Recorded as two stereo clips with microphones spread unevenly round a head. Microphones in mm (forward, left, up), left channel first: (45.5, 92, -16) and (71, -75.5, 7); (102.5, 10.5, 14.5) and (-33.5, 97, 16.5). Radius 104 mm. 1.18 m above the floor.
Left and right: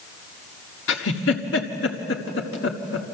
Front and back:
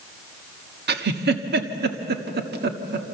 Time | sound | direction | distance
0.9 | a giggle | 135° left | 1.4 m